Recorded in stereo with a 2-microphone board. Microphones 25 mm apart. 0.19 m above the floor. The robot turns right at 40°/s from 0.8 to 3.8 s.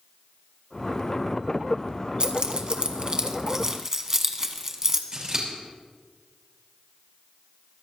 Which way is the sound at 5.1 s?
30° right (ahead or behind).